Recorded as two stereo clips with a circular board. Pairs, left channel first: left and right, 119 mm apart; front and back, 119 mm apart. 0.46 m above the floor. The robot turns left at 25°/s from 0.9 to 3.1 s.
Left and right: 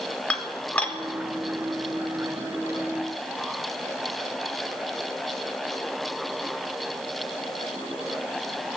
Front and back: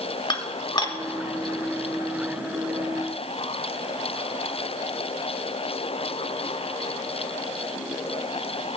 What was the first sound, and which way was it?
Dishes clattering, 15° left.